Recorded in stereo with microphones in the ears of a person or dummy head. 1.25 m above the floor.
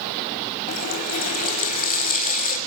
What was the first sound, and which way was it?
A running tap, 45° left (ahead or behind).